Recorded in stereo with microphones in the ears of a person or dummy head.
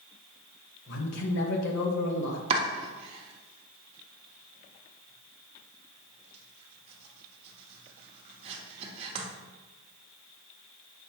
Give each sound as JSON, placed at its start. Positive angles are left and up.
{"t": 0.9, "sound": "a man speaking", "side_deg": 70, "distance_m": 1.3}
{"t": 2.5, "sound": "chopping", "side_deg": -35, "distance_m": 1.2}